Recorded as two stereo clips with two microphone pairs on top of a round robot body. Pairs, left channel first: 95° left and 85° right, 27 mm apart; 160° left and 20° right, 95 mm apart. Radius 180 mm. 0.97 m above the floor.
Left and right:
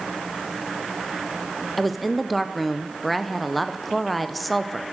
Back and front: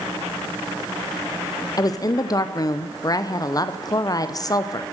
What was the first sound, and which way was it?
A woman speaking, 175° right.